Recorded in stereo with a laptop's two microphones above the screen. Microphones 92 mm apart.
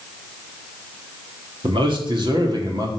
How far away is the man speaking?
About 2.0 m.